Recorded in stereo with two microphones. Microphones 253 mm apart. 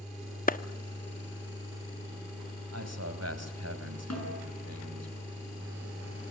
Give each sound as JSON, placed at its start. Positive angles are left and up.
{"t": 0.5, "sound": "a clap", "side_deg": 35, "distance_m": 0.6}
{"t": 2.7, "sound": "a man speaking", "side_deg": -75, "distance_m": 3.5}
{"t": 4.1, "sound": "a snare drum", "side_deg": 80, "distance_m": 6.5}